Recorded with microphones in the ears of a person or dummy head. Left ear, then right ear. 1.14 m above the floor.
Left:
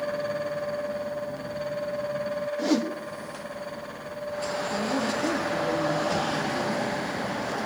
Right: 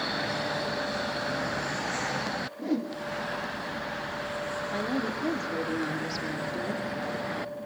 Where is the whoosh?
30° left (ahead or behind), 1.9 m.